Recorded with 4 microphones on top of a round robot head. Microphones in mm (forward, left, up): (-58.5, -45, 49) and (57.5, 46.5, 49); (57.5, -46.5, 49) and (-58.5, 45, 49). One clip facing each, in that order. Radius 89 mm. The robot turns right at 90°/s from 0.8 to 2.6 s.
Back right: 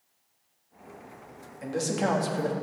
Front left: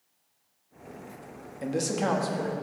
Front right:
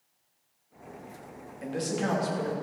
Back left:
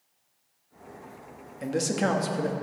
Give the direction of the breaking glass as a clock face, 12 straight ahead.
I don't hear breaking glass.